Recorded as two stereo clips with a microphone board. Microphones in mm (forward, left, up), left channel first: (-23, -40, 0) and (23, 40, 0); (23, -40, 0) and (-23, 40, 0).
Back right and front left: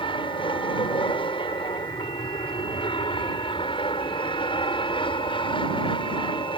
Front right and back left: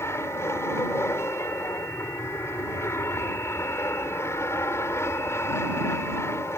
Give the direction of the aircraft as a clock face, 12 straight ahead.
4 o'clock.